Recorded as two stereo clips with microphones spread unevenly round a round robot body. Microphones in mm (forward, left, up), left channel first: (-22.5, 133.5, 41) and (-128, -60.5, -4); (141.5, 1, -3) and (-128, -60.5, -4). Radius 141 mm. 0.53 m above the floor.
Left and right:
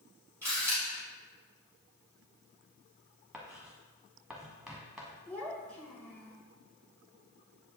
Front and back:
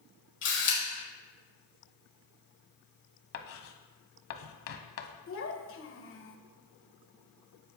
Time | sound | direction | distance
0.4 | a camera shutter | 35° right | 5 m
3.3 | writing | 30° right | 0.9 m
5.3 | a child speaking | 30° right | 1.6 m